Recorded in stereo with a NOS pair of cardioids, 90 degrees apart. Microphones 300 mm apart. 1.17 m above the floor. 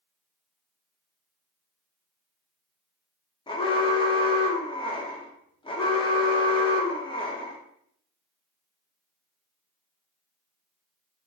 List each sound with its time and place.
3.5 s an alarm: 15° left, 0.8 m